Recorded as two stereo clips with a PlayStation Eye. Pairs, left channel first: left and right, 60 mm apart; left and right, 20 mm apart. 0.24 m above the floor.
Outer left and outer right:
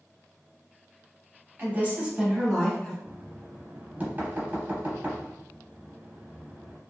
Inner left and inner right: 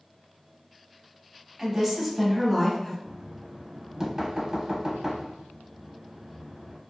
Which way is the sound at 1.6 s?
35° right (ahead or behind).